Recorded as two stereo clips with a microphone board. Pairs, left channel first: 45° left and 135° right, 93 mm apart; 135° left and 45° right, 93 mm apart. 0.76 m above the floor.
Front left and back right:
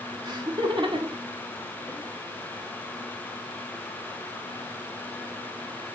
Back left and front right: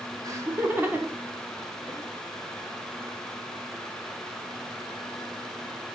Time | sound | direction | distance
0.2 | laughter | 95° right | 1.8 m